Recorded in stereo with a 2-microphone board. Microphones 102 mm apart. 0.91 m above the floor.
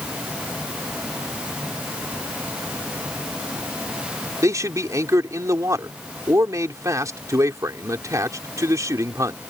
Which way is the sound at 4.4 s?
30° right (ahead or behind).